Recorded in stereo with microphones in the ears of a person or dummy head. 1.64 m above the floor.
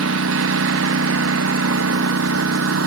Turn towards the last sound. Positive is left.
turn(degrees=-85)